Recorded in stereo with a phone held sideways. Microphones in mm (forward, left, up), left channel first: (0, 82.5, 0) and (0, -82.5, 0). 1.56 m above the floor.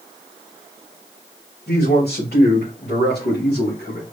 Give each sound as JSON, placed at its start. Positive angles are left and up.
{"t": 1.7, "sound": "a man speaking", "side_deg": 85, "distance_m": 3.0}